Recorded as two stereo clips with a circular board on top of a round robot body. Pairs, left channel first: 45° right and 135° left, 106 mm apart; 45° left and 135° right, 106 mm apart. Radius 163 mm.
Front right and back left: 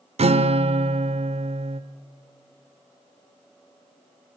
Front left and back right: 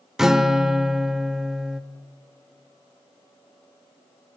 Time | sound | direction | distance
0.2 | a guitar | 140° left | 1.1 m